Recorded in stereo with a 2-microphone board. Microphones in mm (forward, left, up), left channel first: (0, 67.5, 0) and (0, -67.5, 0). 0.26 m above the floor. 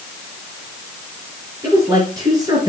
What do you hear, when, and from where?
1.6 s a woman speaking: 25° right (ahead or behind), 4.5 m; by 2.7 s 30° right (ahead or behind), 4 m